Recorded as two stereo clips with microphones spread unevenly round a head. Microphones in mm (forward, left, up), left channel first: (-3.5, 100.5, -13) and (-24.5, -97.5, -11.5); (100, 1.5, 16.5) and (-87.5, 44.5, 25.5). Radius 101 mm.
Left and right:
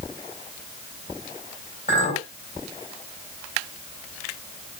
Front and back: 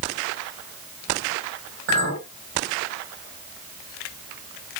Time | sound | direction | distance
1.9 | a clink | 140° left | 5.5 m